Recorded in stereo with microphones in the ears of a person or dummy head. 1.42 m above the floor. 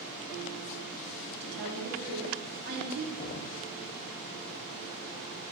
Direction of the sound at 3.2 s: 25° left (ahead or behind).